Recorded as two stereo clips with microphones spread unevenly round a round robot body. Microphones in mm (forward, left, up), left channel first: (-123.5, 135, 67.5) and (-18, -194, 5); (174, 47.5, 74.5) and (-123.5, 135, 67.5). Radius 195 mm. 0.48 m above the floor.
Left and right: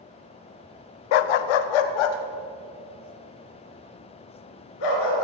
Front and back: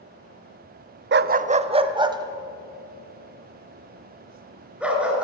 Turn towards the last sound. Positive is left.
turn(degrees=75)